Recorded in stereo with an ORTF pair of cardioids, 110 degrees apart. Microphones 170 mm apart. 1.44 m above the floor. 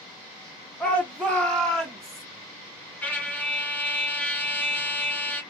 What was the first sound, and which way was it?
A shout, 10° left.